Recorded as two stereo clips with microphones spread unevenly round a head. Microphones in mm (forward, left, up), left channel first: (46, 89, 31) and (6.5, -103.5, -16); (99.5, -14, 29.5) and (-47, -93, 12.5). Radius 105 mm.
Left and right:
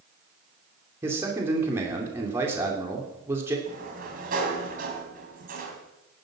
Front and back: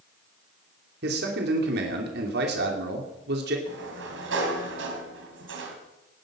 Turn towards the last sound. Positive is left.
turn(degrees=-155)